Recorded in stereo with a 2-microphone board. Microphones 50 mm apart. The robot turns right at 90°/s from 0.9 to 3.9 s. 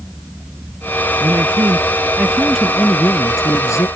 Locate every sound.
1.2 s a man speaking: 120° right; by 3.9 s 120° left